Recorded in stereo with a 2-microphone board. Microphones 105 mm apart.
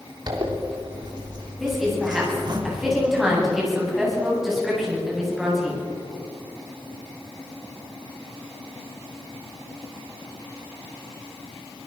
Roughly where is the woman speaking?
Centre.